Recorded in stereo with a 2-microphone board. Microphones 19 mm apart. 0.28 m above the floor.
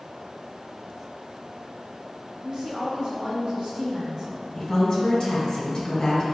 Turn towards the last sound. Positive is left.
turn(degrees=40)  # may be behind; listen again after turning